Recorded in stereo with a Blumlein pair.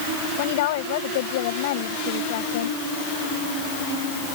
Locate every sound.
0.4 s a woman speaking: 55° left